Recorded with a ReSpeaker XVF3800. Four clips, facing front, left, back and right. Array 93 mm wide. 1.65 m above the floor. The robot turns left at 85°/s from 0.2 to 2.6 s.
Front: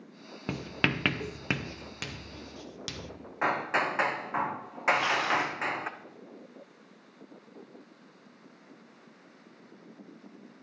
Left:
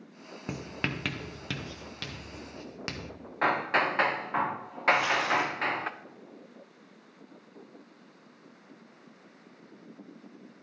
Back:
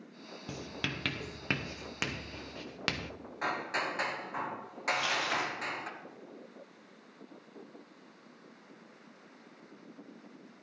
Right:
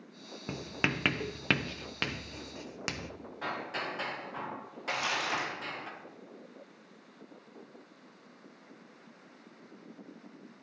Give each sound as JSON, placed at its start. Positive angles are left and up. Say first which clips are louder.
{"t": 0.5, "sound": "writing", "louder": "right 1 dB, front 9 dB", "azimuth_deg": 10, "distance_m": 0.6}
{"t": 3.4, "sound": "hammering", "louder": "left 11 dB, front 6 dB", "azimuth_deg": 60, "distance_m": 0.7}
{"t": 4.9, "sound": "crumpling", "louder": "left 8 dB, front 6 dB", "azimuth_deg": 30, "distance_m": 6.0}